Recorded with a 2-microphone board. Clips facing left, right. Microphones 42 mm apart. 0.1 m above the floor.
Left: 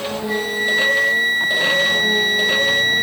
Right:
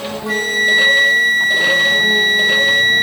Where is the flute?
70° right (ahead or behind), 0.5 m.